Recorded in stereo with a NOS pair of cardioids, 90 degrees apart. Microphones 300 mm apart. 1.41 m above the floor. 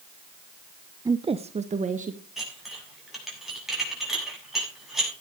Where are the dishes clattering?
Straight ahead, 7.5 m.